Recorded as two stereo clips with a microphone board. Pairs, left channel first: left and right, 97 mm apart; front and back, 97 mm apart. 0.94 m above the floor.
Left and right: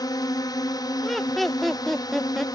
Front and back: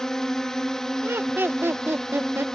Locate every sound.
0.0 s a drone: 80° left
1.0 s laughter: 175° left